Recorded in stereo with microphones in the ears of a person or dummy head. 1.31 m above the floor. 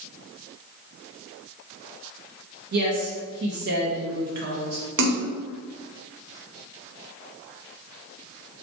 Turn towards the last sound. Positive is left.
turn(degrees=-65)  # may be behind; listen again after turning